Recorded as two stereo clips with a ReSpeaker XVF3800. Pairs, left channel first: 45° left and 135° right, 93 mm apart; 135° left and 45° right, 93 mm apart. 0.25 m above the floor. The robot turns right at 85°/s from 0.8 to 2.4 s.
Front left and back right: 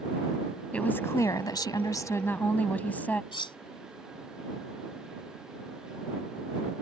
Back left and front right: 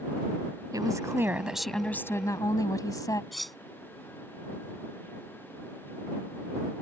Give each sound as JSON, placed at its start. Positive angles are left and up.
{"t": 0.7, "sound": "a woman speaking", "azimuth_deg": -25}
{"t": 3.3, "sound": "cutlery clinking", "azimuth_deg": 45}